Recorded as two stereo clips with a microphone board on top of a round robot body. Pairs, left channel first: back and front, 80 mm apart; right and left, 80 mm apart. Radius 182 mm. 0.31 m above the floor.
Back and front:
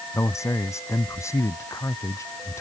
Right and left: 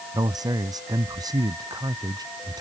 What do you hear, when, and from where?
0.1 s a man speaking: 130° left